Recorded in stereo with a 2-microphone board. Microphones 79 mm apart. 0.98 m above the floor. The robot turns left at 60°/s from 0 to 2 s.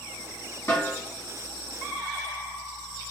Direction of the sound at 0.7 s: 35° left (ahead or behind).